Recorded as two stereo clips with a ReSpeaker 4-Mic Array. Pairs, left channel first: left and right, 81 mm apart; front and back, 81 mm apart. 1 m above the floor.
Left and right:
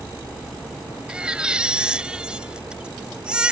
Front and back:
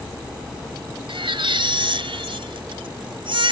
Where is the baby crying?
170° right.